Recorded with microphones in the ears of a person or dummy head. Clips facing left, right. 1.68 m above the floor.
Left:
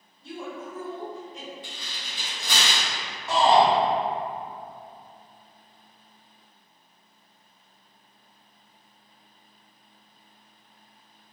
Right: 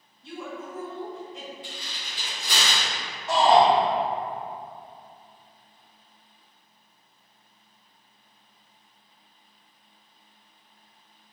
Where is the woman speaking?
60° left (ahead or behind), 2.0 m.